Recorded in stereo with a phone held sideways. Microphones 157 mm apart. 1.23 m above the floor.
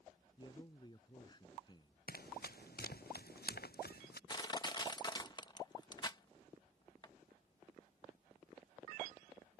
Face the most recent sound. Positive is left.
turn(degrees=25)  # may be behind; listen again after turning